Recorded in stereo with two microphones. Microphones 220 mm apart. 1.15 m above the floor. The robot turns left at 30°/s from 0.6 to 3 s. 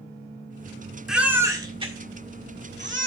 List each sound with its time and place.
1.1 s a baby crying: centre (ahead or behind), 2 m; by 3.1 s 60° right (ahead or behind), 2 m